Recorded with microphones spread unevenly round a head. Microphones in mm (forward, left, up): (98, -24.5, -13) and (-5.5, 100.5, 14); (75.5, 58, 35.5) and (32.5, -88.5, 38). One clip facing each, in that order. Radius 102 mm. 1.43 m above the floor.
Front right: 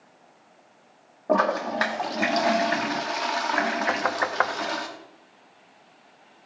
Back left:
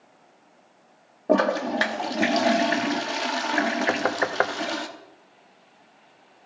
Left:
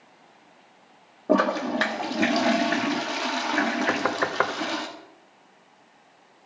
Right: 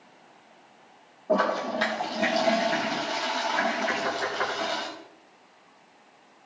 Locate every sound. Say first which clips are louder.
1.3 s a toilet flushing: back left 2 dB, left 3 dB; 95° left, 1.1 m
3.9 s knocking: back left 2 dB, left 3 dB; 85° left, 0.8 m